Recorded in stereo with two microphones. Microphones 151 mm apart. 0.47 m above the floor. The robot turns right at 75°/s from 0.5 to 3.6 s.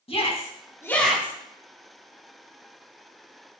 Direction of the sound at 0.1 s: 40° left (ahead or behind).